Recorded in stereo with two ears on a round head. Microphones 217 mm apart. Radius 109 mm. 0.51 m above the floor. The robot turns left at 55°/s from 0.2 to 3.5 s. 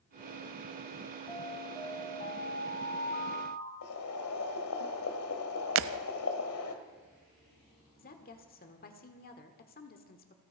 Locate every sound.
1.3 s an alarm: 165° left, 2 m; by 3.7 s 40° left, 2 m
3.8 s boiling: 65° left (ahead or behind), 1.7 m
5.8 s breaking glass: 55° right (ahead or behind), 0.6 m
8.0 s a woman speaking: 40° left (ahead or behind), 1.5 m